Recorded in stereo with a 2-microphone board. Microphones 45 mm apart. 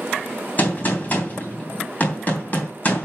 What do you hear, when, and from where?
0.6 s a gunshot: 40° left (ahead or behind), 3 m